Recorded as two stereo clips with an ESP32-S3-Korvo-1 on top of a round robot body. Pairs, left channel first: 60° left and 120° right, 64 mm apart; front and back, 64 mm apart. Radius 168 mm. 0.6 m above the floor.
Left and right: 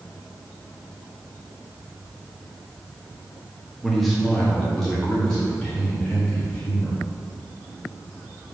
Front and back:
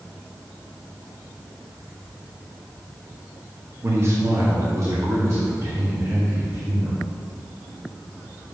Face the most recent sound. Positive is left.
turn(degrees=140)